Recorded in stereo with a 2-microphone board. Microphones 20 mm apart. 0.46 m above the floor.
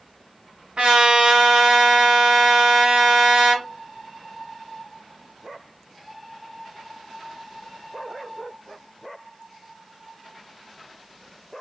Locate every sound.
0.8 s a trumpet: 80° right, 1.8 m